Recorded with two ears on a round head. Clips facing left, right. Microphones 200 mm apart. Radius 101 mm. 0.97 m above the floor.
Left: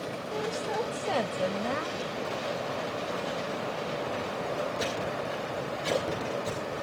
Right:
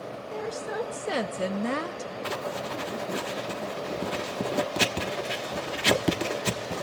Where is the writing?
85° right, 1.3 m.